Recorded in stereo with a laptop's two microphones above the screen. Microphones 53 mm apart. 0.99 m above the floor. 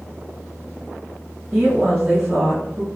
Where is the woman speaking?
30° right (ahead or behind), 1.4 m.